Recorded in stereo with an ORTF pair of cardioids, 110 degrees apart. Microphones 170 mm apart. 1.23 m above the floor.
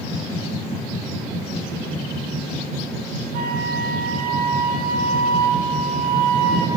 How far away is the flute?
About 7.5 m.